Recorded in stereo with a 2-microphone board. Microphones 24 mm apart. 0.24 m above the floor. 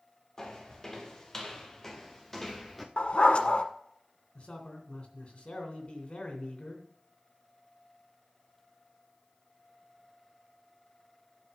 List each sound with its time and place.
0.4 s footsteps: 25° left (ahead or behind), 3 m; by 2.9 s 5° left (ahead or behind), 1.3 m
3.0 s a dog barking: 60° left (ahead or behind), 1.0 m
4.3 s a man speaking: 55° left (ahead or behind), 2.5 m